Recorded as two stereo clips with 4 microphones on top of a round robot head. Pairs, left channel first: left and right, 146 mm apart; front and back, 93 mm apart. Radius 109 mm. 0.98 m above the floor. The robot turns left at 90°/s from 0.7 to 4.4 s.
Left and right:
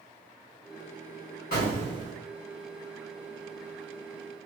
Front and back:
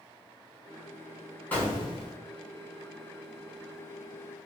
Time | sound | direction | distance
1.5 | an explosion | 70° left | 1.3 m